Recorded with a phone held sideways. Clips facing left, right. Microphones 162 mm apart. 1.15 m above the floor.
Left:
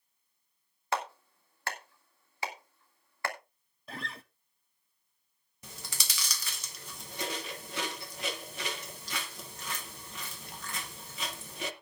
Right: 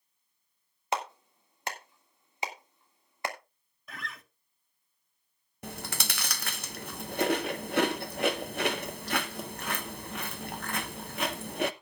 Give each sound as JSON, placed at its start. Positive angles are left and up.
{"t": 0.9, "sound": "a clap", "side_deg": -20, "distance_m": 2.0}
{"t": 3.9, "sound": "a guitar", "side_deg": 30, "distance_m": 0.8}
{"t": 5.6, "sound": "chewing", "side_deg": -70, "distance_m": 0.7}